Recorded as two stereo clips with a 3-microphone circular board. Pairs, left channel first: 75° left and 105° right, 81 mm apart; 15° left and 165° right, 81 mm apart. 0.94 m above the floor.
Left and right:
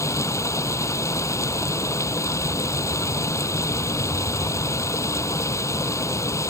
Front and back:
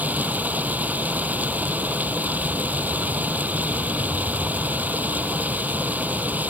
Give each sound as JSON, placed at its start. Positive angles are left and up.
{"t": 0.0, "sound": "running water", "azimuth_deg": 125}